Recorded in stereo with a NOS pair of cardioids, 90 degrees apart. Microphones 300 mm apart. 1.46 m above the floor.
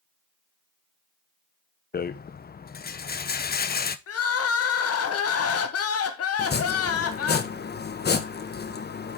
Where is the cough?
I don't hear a cough.